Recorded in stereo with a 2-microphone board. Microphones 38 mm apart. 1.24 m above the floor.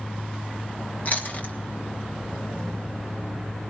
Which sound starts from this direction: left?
Chewing, at 1.1 s.